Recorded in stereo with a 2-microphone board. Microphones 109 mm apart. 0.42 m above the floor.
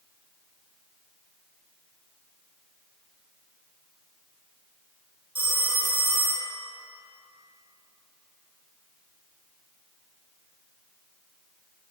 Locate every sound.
5.3 s a phone ringing: 50° right (ahead or behind), 0.7 m